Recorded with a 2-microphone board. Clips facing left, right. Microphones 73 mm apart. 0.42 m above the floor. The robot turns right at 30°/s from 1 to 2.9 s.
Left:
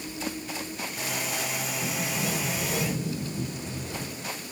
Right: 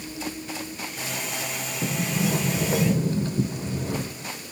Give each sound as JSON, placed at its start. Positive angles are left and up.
{"t": 1.8, "sound": "a sliding door", "azimuth_deg": -135, "distance_m": 0.9}